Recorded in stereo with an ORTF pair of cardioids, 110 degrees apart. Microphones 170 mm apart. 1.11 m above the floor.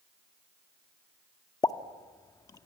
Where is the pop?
20° left, 1.1 m.